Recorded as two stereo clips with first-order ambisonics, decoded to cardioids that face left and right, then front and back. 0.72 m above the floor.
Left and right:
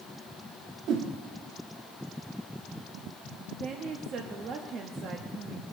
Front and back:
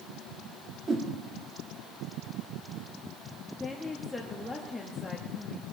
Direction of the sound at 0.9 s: 115° right.